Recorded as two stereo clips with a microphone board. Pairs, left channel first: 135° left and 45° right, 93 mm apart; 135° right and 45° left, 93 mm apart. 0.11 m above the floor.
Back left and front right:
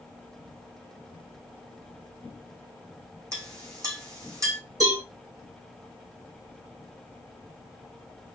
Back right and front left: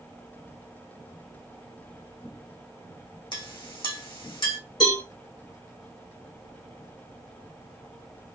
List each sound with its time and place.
3.3 s a clink: 100° right, 3.5 m
4.8 s a cowbell: 90° right, 3.5 m